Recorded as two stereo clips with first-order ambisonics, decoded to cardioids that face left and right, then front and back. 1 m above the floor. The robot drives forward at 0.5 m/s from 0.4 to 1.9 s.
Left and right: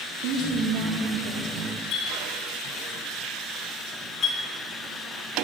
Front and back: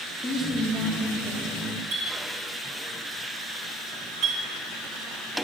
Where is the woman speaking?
75° right, 2.5 m; by 1.6 s 85° right, 2.5 m.